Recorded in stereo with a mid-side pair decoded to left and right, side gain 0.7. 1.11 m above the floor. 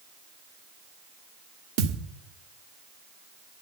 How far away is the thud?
About 1.2 m.